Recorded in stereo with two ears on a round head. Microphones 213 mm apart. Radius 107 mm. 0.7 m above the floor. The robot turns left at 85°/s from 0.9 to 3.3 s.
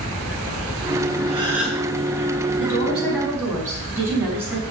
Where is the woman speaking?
50° left, 5.5 m; by 4.6 s 10° right, 5.5 m.